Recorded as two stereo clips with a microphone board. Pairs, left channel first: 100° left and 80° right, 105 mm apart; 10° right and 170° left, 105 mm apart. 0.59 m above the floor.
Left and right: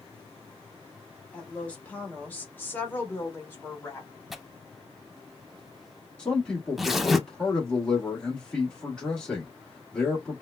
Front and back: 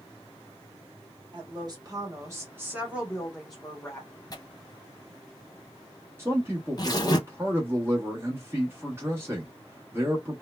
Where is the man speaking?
170° left, 1.1 m.